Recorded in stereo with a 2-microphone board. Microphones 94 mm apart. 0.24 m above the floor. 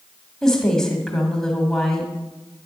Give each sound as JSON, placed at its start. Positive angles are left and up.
{"t": 0.4, "sound": "a woman speaking", "side_deg": 5, "distance_m": 1.2}